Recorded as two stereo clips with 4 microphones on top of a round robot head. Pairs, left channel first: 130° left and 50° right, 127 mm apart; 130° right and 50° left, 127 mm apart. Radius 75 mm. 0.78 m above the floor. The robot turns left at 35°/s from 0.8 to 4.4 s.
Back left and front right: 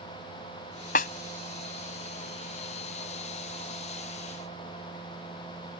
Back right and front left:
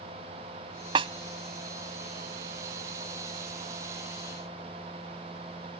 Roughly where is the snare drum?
Left.